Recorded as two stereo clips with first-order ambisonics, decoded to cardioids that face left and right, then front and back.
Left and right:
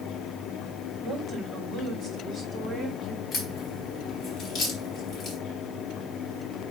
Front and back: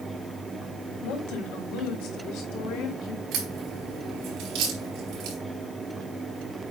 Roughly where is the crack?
Behind left.